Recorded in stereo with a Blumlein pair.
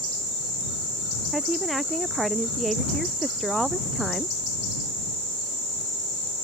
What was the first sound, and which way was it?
A woman speaking, 10° right.